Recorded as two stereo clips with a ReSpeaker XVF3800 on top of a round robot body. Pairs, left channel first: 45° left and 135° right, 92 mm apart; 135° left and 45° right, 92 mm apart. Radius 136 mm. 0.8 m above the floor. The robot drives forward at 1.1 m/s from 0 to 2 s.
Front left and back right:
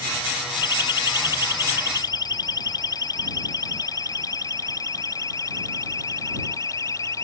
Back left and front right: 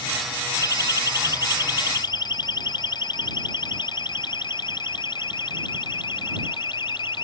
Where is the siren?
85° left; by 7.2 s 100° left.